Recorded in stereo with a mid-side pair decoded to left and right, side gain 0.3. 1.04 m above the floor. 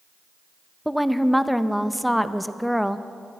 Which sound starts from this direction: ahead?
A woman speaking, at 0.8 s.